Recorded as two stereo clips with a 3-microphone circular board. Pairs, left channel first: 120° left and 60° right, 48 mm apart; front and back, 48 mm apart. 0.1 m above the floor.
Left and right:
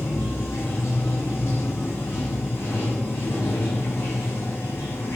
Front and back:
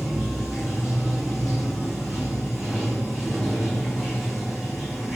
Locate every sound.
0.0 s running water: 95° left, 0.7 m